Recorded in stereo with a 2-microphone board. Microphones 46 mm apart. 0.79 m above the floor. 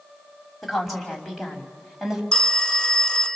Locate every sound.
0.6 s a woman speaking: 5° left (ahead or behind), 4.5 m; by 2.2 s 5° right (ahead or behind), 4.5 m
2.3 s a phone ringing: 15° left (ahead or behind), 1.0 m